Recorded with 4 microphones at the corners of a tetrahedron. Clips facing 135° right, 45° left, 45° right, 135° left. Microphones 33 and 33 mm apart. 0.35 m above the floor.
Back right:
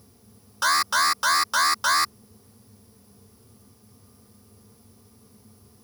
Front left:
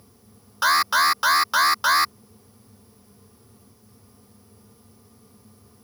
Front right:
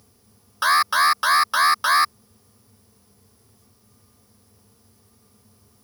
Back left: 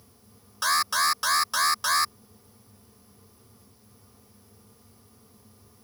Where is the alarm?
20° right.